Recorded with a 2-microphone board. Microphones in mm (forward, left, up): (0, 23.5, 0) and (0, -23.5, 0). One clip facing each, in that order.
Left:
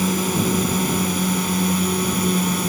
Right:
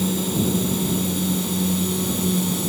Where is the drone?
65° left (ahead or behind); by 2.7 s 55° left (ahead or behind).